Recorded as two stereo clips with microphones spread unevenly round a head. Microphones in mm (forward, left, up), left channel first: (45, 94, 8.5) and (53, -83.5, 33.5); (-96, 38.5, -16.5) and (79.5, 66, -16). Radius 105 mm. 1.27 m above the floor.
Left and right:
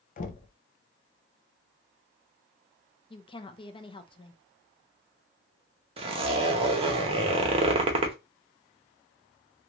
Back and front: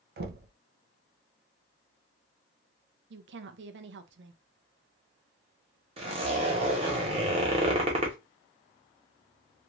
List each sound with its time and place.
0.2 s knocking: 45° left, 0.5 m
3.1 s a woman speaking: 25° left, 0.6 m
6.0 s a zipper: 45° right, 0.7 m